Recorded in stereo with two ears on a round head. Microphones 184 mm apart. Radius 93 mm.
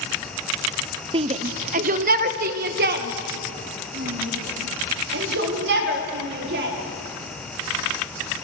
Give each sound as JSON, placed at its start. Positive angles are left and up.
{"t": 1.1, "sound": "a shout", "side_deg": -25, "distance_m": 0.8}